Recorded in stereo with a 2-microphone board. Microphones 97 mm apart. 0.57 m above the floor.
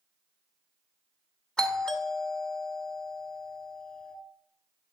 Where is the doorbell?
10° left (ahead or behind), 1.6 m.